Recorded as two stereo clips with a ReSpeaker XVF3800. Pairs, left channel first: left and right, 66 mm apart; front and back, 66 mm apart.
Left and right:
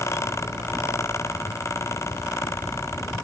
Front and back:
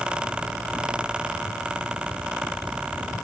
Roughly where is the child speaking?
No child speaking in this recording.